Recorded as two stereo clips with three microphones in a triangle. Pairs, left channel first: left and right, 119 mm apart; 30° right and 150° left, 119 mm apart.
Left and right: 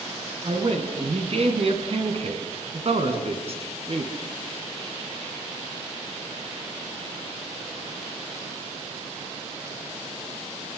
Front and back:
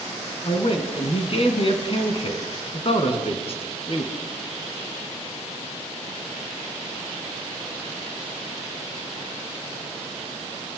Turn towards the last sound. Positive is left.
turn(degrees=-65)